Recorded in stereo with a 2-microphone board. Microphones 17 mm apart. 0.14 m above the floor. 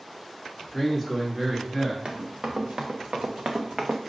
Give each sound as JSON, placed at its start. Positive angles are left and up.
{"t": 0.7, "sound": "a man speaking", "side_deg": -15, "distance_m": 1.5}
{"t": 2.0, "sound": "running footsteps", "side_deg": -65, "distance_m": 1.2}